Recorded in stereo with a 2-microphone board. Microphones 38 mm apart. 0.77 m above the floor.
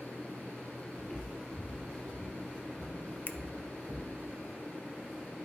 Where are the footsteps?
10° left (ahead or behind), 0.8 m; by 4.2 s 5° left (ahead or behind), 2.5 m.